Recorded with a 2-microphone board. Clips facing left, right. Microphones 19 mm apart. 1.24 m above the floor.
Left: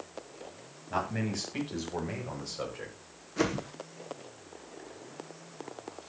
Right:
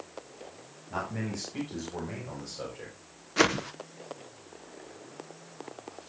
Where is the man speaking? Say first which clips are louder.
Left 2 dB; 40° left (ahead or behind), 7.5 m; by 3.0 s 25° left (ahead or behind), 5 m.